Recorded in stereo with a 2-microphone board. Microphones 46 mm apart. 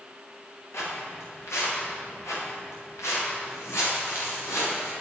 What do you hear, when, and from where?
0.7 s footsteps: 70° left (ahead or behind), 5 m; by 4.9 s 90° left, 7 m